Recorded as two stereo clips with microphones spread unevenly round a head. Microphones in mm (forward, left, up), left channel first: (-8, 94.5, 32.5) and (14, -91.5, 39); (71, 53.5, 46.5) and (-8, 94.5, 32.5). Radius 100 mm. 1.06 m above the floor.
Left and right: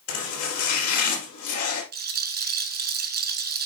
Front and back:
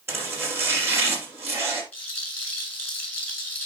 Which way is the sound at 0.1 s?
90° left.